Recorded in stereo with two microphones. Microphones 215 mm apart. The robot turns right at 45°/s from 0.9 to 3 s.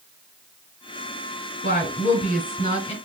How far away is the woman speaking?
About 1.3 m.